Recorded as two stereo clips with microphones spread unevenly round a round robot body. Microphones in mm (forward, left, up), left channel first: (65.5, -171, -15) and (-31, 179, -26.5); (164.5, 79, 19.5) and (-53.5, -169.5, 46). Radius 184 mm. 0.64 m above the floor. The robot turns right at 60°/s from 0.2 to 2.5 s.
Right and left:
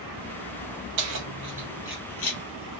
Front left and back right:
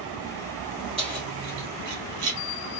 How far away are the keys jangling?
About 1.4 m.